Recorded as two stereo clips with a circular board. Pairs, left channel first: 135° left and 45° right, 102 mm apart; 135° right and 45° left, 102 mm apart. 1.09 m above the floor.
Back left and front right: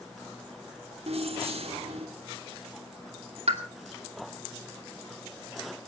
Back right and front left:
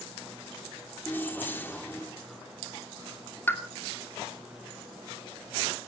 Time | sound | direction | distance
1.1 | keys jangling | 65° right | 2.5 m
3.5 | a pop | 65° right | 2 m